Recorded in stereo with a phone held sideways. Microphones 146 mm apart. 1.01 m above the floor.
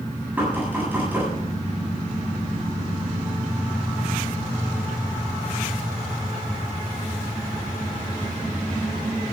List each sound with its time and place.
0.4 s knocking: 10° right (ahead or behind), 7.5 m